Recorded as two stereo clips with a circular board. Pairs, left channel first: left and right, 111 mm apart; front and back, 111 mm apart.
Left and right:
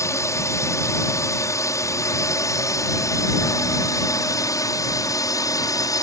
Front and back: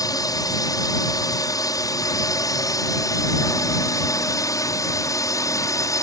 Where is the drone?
40° left; by 6.0 s 45° left.